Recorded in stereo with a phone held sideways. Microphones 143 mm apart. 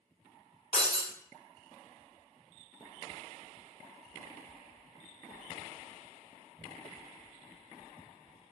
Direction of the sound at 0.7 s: 40° left (ahead or behind).